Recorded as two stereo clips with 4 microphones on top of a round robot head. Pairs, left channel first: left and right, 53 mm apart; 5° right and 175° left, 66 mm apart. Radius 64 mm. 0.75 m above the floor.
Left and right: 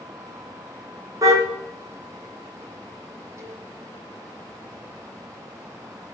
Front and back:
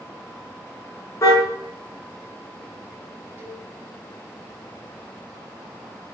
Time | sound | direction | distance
1.2 | a car horn | 60° right | 5 m
3.4 | a cowbell | 120° right | 5.5 m